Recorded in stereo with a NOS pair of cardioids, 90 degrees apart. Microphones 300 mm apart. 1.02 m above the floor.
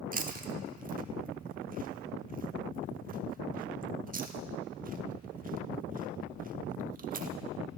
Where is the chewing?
30° right, 1.1 m.